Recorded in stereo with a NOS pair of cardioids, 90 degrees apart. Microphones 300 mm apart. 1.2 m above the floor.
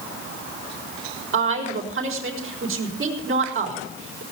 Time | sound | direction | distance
1.3 | a woman speaking | 45° right | 4 m